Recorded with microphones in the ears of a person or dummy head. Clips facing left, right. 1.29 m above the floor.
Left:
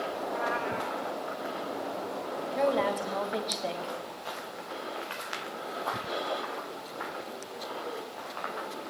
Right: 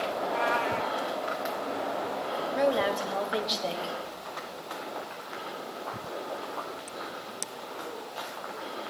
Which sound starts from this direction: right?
A cat meowing, at 0.2 s.